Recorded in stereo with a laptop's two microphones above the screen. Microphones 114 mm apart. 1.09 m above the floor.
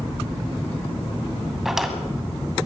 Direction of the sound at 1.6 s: Centre (ahead or behind).